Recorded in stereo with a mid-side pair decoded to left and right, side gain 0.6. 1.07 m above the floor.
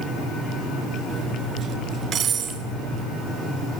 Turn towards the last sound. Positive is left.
turn(degrees=-40)